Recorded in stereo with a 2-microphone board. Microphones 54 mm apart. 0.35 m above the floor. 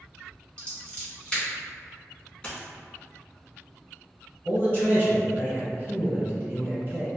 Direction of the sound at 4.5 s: 35° right (ahead or behind).